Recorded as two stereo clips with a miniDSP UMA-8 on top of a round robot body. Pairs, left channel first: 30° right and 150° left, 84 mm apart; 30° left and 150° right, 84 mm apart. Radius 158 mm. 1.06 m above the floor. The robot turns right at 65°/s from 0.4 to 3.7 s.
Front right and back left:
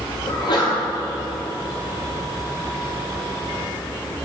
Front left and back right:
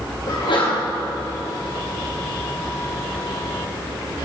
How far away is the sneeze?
About 3.5 m.